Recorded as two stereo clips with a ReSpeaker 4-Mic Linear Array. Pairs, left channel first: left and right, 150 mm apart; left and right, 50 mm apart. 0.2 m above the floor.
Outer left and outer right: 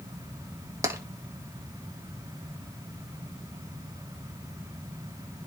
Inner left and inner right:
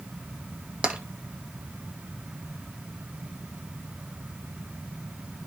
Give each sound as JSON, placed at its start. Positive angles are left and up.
{"t": 0.8, "sound": "tapping", "side_deg": -20, "distance_m": 1.3}